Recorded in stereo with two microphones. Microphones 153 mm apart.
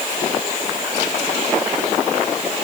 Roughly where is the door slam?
I don't hear a door slam.